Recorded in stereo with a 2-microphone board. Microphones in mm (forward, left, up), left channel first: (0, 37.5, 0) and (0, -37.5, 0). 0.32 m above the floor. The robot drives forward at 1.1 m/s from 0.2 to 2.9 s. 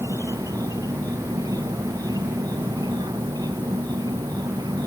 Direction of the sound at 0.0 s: 55° right (ahead or behind).